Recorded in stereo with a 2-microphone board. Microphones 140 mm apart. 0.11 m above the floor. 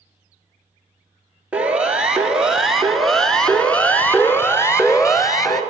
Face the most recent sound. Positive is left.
turn(degrees=25)  # may be behind; listen again after turning